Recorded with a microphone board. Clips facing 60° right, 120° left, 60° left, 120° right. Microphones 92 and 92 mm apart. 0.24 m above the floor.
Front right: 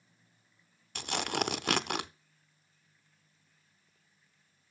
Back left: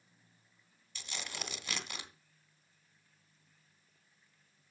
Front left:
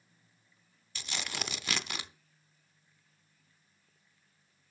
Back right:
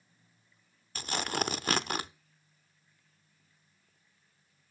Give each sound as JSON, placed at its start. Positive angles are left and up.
{"t": 0.9, "sound": "tearing paper", "azimuth_deg": -80, "distance_m": 0.5}